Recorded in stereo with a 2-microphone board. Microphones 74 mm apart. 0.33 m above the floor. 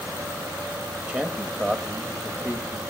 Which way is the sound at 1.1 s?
15° right (ahead or behind).